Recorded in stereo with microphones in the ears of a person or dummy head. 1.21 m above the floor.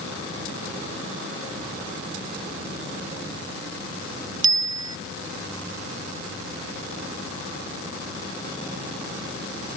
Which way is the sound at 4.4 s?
25° right (ahead or behind).